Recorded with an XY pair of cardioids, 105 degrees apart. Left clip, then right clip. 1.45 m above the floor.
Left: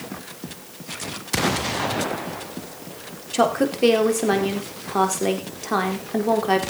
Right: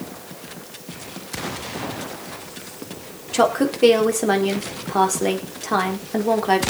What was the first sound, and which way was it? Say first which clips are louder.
A woman speaking: right 2 dB; 10° right.